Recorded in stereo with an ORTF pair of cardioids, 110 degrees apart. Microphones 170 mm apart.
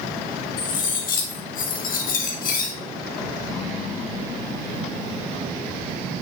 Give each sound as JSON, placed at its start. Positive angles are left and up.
{"t": 0.6, "sound": "cutlery clinking", "azimuth_deg": 55, "distance_m": 1.7}